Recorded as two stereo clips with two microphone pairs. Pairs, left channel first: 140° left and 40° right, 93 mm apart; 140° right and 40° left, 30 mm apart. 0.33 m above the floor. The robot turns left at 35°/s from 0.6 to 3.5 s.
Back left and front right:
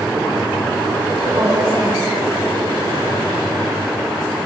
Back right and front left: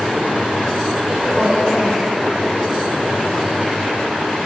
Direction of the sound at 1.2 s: 15° right.